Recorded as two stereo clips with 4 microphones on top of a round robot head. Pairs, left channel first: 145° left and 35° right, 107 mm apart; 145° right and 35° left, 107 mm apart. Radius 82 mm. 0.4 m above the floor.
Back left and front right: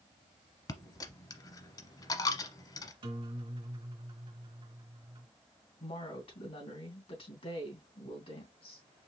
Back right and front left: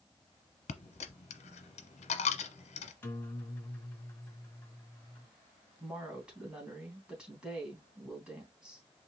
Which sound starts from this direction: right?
A guitar, at 3.0 s.